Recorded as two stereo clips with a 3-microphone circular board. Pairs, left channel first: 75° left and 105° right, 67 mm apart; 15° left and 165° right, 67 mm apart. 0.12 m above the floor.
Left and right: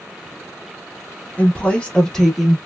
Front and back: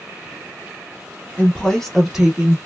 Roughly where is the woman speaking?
Ahead left.